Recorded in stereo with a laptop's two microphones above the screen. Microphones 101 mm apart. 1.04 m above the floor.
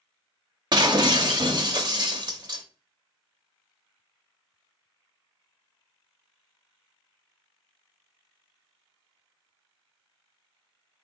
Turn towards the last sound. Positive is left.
turn(degrees=-45)  # may be behind; listen again after turning